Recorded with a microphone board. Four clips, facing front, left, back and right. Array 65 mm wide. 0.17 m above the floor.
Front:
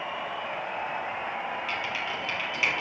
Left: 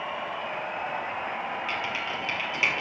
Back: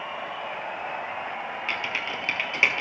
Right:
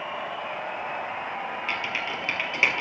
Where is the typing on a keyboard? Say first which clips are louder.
Right 1 dB, back 1 dB; 155° right, 3 m.